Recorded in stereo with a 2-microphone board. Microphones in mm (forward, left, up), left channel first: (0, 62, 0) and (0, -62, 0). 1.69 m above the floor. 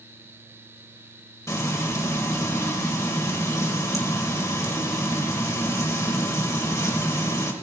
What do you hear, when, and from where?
1.5 s frying: 25° left (ahead or behind), 2 m